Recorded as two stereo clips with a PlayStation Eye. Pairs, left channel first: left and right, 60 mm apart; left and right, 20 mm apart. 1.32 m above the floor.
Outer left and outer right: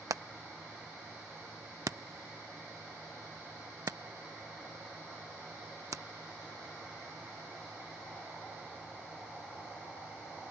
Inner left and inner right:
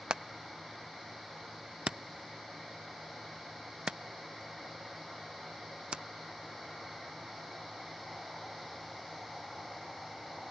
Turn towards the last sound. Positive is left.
turn(degrees=-65)  # may be behind; listen again after turning